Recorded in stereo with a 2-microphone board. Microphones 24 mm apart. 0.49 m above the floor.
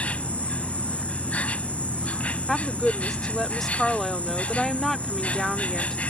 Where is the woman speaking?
10° left (ahead or behind).